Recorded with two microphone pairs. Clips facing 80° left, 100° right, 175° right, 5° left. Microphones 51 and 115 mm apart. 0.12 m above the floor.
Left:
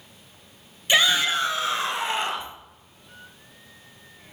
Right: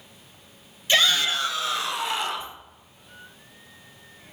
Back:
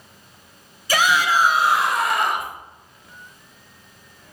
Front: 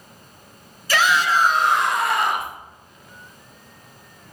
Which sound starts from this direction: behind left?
A shout, at 0.9 s.